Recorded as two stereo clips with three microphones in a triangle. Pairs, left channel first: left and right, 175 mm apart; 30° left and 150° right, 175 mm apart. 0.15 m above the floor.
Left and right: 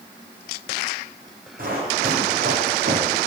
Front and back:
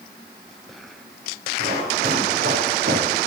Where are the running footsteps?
125° right, 5.5 m; by 3.2 s 115° right, 4 m.